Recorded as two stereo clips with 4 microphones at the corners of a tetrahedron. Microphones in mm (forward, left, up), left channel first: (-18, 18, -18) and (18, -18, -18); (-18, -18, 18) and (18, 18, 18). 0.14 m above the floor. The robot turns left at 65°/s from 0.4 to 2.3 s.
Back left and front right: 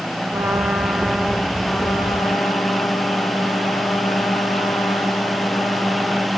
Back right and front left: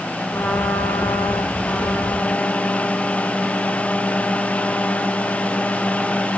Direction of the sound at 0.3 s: 80° right.